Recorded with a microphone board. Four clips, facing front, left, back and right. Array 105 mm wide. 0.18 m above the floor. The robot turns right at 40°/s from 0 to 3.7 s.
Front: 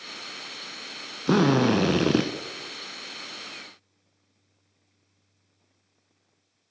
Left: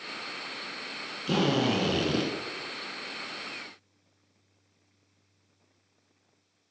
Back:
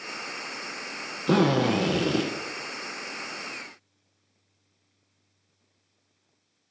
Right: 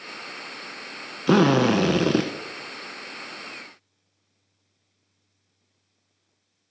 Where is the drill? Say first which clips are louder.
Right 8 dB, front 1 dB; 80° right, 1.0 m; by 2.3 s 40° right, 1.0 m.